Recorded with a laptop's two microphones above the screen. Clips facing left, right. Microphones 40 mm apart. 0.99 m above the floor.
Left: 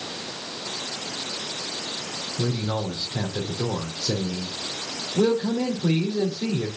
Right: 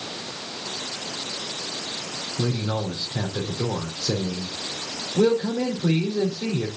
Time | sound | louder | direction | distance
2.4 | a man speaking | right 1 dB | 20° right (ahead or behind) | 3 m